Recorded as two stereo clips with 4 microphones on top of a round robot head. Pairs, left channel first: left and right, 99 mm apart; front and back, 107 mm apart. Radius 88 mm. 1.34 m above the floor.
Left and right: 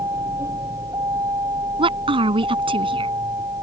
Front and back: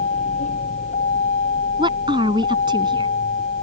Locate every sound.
0.0 s a vehicle: 20° right
1.8 s a woman speaking: 120° right